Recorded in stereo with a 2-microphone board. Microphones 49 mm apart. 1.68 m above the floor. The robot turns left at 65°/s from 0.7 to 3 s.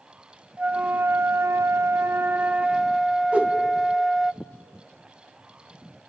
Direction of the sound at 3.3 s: 25° right (ahead or behind).